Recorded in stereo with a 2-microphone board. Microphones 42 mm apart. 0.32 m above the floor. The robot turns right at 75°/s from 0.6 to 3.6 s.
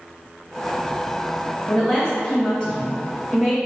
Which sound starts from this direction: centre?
A woman speaking, at 1.7 s.